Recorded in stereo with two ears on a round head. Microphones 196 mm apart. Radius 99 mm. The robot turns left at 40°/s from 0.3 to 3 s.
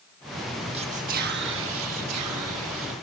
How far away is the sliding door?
No sliding door in this recording.